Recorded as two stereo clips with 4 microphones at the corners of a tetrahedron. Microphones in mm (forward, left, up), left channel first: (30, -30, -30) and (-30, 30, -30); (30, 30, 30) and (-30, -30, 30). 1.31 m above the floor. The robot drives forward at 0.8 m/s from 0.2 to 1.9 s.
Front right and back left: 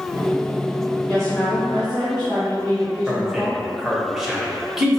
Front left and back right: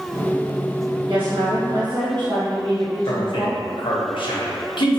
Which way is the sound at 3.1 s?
50° left.